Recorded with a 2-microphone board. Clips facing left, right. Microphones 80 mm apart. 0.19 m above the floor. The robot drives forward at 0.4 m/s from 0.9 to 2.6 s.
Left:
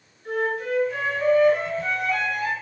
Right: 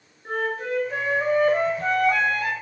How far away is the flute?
About 0.9 m.